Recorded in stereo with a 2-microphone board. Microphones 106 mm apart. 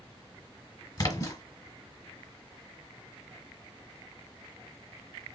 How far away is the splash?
About 1.3 m.